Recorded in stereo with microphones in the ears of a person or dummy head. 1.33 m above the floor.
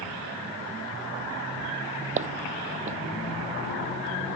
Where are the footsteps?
45° right (ahead or behind).